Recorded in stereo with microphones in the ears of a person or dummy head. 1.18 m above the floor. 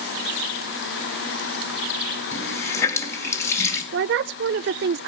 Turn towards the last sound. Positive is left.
turn(degrees=-60)  # may be behind; listen again after turning